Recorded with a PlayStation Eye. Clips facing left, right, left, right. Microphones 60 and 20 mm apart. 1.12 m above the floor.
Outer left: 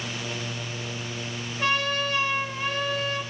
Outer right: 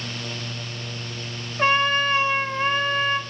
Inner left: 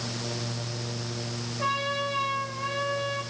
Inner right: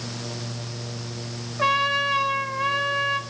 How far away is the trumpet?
About 2.5 m.